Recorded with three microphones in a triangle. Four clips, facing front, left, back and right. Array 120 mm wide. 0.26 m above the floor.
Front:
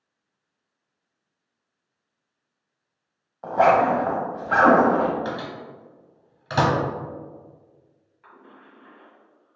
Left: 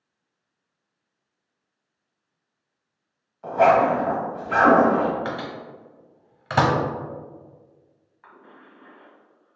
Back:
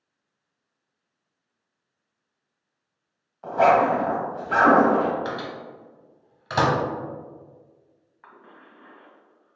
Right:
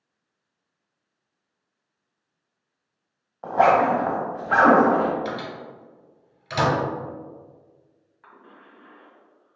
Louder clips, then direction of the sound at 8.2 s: Left 1 dB, even; 175° left.